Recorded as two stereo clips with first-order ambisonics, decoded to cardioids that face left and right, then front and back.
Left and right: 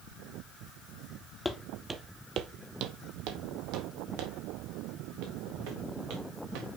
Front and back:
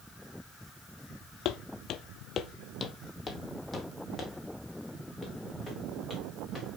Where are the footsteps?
10° left, 0.7 m; by 6.7 s 95° right, 3 m.